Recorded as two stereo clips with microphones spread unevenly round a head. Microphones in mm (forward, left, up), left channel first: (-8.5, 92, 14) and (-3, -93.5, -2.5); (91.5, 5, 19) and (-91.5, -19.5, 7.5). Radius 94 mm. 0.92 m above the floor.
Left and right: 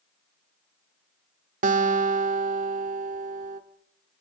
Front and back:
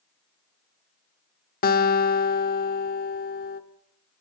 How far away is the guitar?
About 1.3 m.